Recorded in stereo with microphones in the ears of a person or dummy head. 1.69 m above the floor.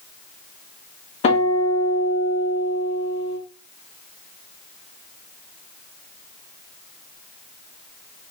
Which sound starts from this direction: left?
A guitar, at 1.2 s.